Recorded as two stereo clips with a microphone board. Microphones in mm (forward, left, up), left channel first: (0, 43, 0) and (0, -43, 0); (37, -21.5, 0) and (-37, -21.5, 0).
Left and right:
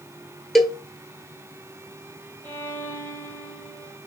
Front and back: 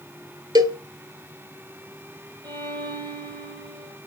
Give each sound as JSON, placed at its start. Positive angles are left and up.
{"t": 0.6, "sound": "a cowbell", "azimuth_deg": 180, "distance_m": 0.6}
{"t": 2.4, "sound": "a violin", "azimuth_deg": 160, "distance_m": 1.0}